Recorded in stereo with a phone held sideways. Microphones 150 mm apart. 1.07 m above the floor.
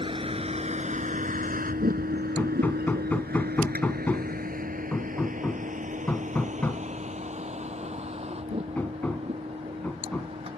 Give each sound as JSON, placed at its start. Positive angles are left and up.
{"t": 0.0, "sound": "a vehicle", "side_deg": -35}
{"t": 2.4, "sound": "hammering", "side_deg": 10}